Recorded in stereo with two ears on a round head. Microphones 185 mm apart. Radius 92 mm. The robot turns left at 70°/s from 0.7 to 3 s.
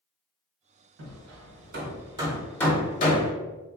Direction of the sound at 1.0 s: 75° right (ahead or behind).